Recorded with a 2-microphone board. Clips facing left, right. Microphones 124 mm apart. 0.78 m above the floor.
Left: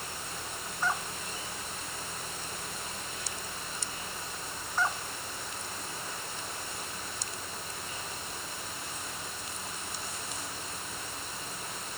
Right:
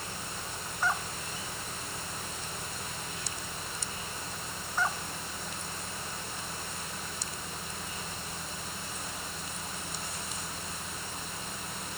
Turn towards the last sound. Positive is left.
No sound to turn to.